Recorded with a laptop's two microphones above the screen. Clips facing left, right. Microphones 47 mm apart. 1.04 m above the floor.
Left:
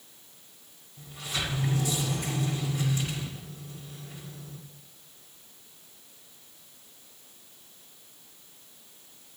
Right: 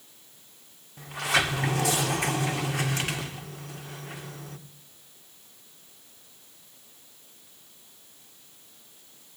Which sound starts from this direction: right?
A sliding door, at 1.0 s.